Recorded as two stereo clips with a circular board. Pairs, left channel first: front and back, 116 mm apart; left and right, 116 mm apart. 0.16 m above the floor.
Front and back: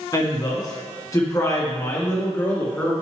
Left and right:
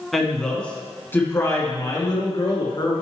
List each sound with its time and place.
0.1 s a woman speaking: straight ahead, 1.8 m; by 2.9 s 65° left, 2.5 m